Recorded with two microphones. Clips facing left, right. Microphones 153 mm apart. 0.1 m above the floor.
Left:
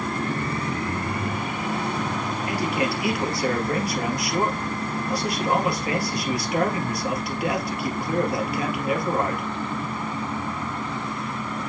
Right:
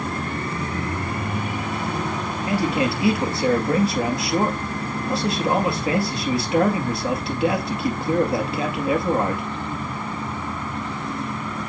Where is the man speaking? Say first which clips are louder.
Right 5 dB; 25° right (ahead or behind), 2.0 m.